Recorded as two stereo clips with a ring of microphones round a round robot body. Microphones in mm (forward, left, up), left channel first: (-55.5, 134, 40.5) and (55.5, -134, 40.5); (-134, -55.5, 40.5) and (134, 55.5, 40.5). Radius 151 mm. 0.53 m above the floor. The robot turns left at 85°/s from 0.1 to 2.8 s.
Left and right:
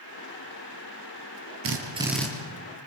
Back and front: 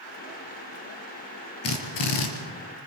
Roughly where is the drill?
Behind right.